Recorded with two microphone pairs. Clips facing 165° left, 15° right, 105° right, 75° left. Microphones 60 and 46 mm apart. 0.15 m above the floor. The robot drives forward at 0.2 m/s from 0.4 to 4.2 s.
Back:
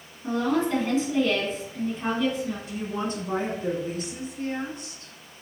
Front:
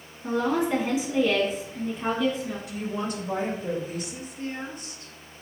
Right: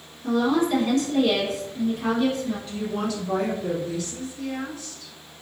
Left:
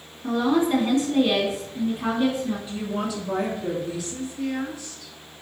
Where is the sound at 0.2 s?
45° left, 1.5 m; by 2.6 s 85° left, 1.4 m.